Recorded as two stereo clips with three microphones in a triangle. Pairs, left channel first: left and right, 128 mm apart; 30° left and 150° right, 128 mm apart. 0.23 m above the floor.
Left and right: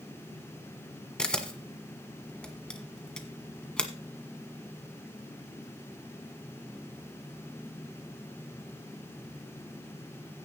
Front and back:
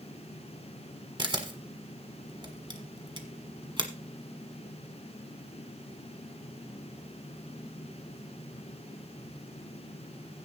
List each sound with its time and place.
1.2 s a camera shutter: 170° left, 1.5 m